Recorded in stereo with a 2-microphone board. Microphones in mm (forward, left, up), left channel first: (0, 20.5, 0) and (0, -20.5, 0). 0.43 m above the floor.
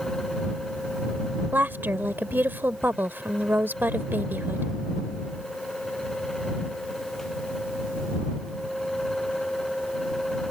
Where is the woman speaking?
55° right (ahead or behind).